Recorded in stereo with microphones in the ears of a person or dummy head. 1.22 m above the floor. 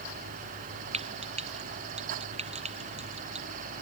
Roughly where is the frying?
Right.